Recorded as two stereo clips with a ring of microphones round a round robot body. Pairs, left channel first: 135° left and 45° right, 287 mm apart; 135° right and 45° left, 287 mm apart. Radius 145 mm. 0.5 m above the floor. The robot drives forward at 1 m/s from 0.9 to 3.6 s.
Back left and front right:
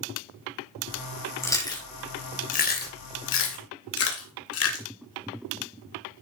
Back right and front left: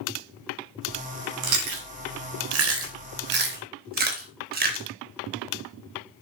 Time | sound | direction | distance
1.4 | chewing | 55° left | 3.5 m